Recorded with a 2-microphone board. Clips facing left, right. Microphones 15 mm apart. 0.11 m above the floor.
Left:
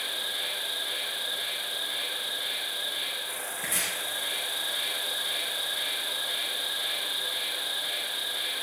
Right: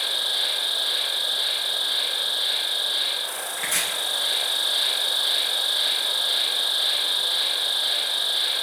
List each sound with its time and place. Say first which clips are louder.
0.0 s an insect: right 7 dB; 60° right (ahead or behind), 2 m
3.6 s chopping: right 6 dB; 70° right (ahead or behind), 8.5 m